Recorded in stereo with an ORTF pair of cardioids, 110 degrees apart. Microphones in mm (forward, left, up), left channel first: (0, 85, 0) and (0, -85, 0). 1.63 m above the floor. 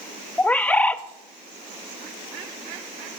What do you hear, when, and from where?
0.4 s a bird: 10° left, 0.5 m